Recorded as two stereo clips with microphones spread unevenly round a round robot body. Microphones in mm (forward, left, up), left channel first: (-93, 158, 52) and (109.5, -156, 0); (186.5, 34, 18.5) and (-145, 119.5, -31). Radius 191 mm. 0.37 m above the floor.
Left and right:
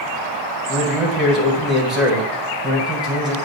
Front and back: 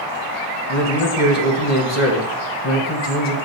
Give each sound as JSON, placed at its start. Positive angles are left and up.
{"t": 0.7, "sound": "a man speaking", "azimuth_deg": 25, "distance_m": 1.9}